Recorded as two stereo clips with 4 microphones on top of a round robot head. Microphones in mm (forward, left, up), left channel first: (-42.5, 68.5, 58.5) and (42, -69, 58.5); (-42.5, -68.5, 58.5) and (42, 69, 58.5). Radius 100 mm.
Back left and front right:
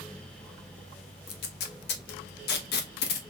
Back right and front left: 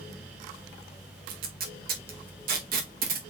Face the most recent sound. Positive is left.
turn(degrees=95)